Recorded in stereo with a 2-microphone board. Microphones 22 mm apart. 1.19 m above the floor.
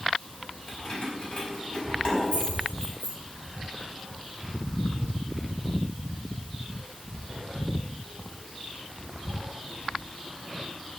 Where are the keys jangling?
50° left (ahead or behind), 4.5 m.